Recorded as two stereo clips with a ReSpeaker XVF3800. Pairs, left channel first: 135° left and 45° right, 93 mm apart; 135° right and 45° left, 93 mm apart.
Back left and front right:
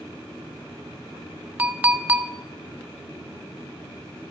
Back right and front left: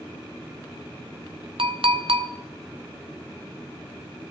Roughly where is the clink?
Ahead left.